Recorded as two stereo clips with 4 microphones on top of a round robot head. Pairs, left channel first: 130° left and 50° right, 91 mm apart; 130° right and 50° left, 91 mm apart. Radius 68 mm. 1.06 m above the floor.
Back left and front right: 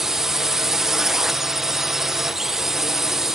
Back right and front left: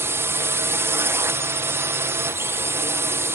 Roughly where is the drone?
Ahead left.